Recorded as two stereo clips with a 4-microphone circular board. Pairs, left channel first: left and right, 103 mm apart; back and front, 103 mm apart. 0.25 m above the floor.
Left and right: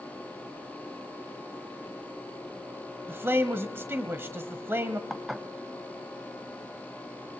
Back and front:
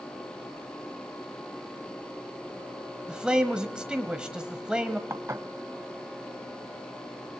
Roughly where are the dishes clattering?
Ahead.